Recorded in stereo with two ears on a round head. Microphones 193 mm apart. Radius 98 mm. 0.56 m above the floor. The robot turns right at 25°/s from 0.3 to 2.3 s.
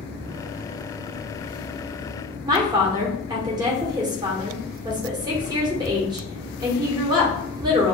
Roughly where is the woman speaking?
Centre.